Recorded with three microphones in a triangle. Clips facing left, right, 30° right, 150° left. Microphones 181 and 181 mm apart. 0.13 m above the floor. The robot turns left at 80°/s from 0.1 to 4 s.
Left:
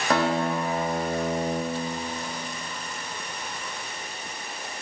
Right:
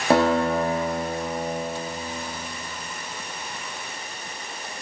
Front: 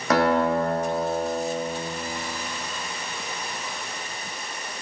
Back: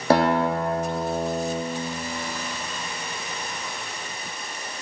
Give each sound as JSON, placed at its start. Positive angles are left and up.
{"t": 0.1, "sound": "a guitar", "azimuth_deg": -150, "distance_m": 3.0}